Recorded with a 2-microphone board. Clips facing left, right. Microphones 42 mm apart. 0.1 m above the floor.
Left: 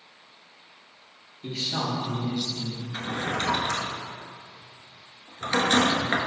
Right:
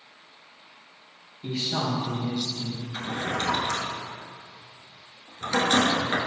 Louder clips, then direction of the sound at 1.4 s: Right 1 dB; 10° right (ahead or behind).